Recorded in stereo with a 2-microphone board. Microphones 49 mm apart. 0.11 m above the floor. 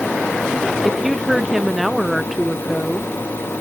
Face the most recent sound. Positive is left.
turn(degrees=-5)  # may be behind; listen again after turning